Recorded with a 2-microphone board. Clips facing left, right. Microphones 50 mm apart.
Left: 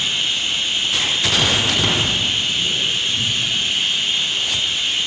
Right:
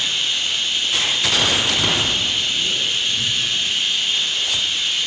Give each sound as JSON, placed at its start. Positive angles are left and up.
{"t": 0.0, "sound": "running water", "side_deg": 25, "distance_m": 4.5}